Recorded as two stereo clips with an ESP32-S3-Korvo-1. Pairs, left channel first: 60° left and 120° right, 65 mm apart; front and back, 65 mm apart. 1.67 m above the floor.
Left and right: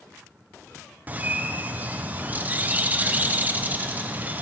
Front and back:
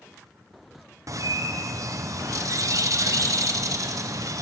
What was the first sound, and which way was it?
A bird, straight behind.